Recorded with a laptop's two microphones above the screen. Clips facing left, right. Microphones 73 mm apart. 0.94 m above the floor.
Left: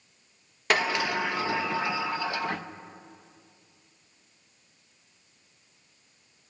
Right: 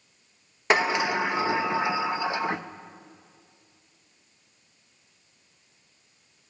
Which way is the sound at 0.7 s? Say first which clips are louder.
Right 3 dB; 20° right (ahead or behind).